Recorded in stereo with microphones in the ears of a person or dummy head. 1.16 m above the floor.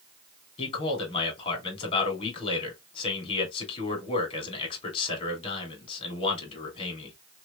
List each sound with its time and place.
0.6 s a man speaking: 30° left (ahead or behind), 2 m